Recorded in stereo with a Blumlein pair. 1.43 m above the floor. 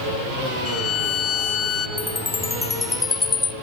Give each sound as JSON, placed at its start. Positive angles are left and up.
{"t": 0.7, "sound": "a violin", "azimuth_deg": 25, "distance_m": 2.5}
{"t": 2.0, "sound": "a chime", "azimuth_deg": 15, "distance_m": 0.8}